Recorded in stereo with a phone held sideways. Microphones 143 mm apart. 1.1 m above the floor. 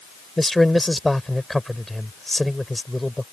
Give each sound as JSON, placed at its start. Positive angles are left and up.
{"t": 0.4, "sound": "a man speaking", "side_deg": 0}